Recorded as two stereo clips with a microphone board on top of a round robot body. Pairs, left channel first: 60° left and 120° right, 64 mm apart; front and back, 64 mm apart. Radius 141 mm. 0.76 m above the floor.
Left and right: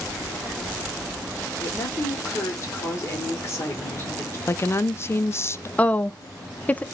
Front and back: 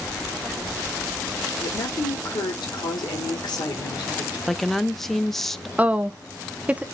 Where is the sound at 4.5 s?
85° left, 0.6 m.